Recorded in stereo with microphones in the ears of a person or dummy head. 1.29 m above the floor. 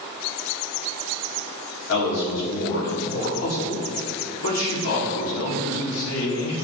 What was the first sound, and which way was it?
A man speaking, 70° left (ahead or behind).